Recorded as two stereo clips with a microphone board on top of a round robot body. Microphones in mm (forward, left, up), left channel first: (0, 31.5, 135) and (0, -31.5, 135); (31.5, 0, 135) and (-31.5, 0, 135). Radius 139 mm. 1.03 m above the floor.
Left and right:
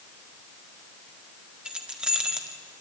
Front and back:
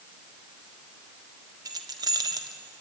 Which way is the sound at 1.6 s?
170° right.